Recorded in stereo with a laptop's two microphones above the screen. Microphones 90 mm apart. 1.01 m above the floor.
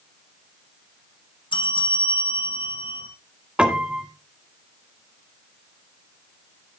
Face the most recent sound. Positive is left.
turn(degrees=-10)  # may be behind; listen again after turning